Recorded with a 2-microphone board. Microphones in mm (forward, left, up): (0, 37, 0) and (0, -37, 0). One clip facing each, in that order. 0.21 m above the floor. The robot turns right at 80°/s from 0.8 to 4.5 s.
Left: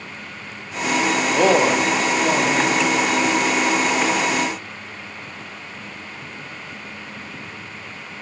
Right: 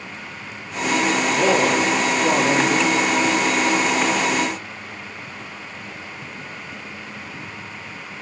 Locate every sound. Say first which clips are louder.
1.3 s a man speaking: left 3 dB; 110° left, 6.5 m; by 3.0 s 120° right, 6.5 m